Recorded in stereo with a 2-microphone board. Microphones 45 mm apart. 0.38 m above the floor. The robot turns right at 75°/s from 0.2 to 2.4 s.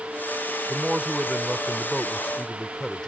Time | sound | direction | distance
0.7 | a man speaking | 20° right (ahead or behind) | ?